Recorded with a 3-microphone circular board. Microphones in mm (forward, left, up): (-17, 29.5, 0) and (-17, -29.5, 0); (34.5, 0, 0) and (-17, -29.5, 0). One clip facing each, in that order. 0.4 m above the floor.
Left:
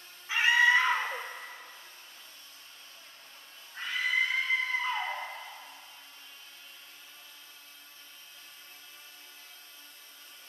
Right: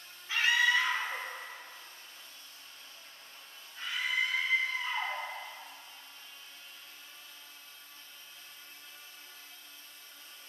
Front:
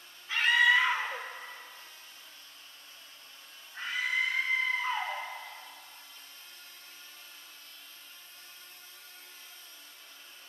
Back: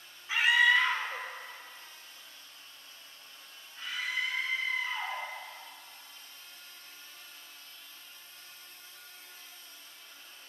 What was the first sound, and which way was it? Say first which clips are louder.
A scream: left 4 dB, even; 145° left.